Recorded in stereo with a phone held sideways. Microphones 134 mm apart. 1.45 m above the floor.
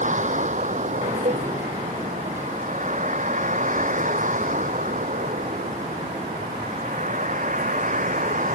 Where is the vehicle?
65° right (ahead or behind); by 8.6 s 75° right (ahead or behind).